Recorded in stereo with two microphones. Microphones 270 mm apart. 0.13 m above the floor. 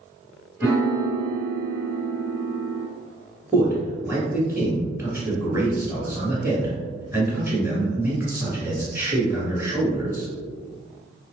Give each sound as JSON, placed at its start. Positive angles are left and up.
{"t": 0.6, "sound": "a piano", "side_deg": -5, "distance_m": 1.4}
{"t": 3.5, "sound": "a man speaking", "side_deg": -10, "distance_m": 1.5}